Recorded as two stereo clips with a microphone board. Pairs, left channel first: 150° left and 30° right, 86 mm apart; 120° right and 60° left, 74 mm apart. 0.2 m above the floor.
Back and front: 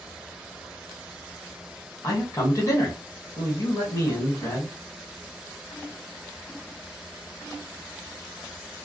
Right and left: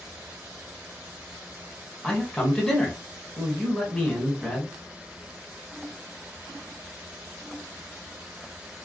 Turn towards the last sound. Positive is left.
turn(degrees=165)